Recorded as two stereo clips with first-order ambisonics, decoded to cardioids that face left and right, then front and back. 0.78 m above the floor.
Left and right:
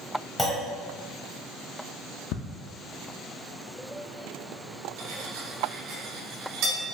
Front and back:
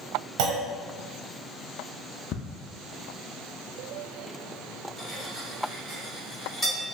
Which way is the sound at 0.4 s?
175° left.